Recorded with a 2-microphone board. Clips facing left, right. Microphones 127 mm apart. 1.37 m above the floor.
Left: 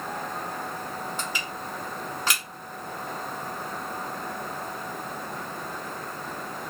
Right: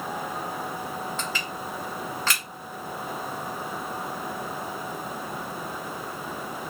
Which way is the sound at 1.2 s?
15° left (ahead or behind).